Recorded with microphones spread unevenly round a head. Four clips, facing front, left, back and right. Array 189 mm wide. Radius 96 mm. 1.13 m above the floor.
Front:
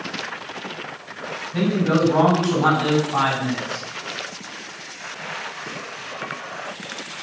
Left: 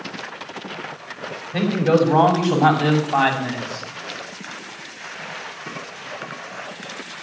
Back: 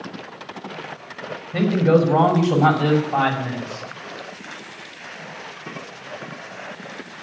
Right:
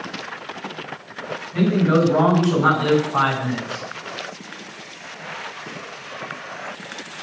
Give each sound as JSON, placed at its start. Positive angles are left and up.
{"t": 1.5, "sound": "a man speaking", "azimuth_deg": 145, "distance_m": 5.5}